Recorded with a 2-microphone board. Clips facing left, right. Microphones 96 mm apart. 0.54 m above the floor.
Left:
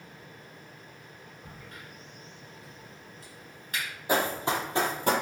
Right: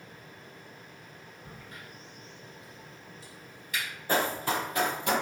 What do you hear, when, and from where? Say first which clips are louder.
1.4 s a crack: even; 45° left (ahead or behind), 1.5 m
4.1 s running footsteps: left 1 dB; 15° left (ahead or behind), 0.7 m; by 5.1 s 40° left (ahead or behind), 0.6 m